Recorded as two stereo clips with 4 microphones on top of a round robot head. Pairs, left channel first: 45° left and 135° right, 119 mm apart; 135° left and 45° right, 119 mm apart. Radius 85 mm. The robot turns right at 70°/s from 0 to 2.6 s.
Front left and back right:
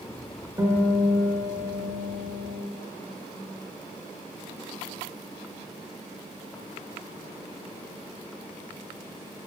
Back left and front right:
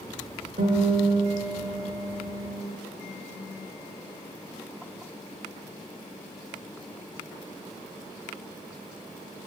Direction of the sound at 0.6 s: 65° right.